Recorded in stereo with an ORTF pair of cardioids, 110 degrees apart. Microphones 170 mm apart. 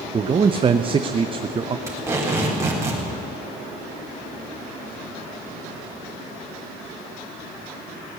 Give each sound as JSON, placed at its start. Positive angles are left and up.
{"t": 0.1, "sound": "a man speaking", "azimuth_deg": -30, "distance_m": 0.6}
{"t": 1.9, "sound": "tape being pulled", "azimuth_deg": -15, "distance_m": 4.0}